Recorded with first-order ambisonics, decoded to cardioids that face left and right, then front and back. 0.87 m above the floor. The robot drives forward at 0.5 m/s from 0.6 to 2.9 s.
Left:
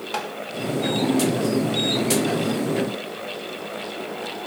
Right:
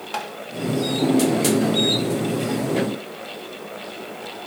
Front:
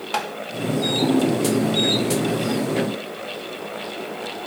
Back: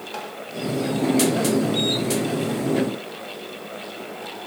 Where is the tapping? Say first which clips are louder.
Even, front 9 dB; 5° left, 0.8 m.